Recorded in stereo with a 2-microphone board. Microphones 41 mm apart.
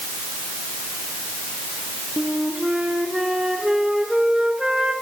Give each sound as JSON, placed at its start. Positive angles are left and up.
{"t": 2.2, "sound": "a flute", "side_deg": -20, "distance_m": 2.5}